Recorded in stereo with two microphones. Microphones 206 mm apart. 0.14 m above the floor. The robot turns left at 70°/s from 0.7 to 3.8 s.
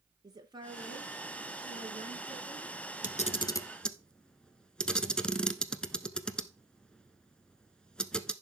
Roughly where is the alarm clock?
I don't hear an alarm clock.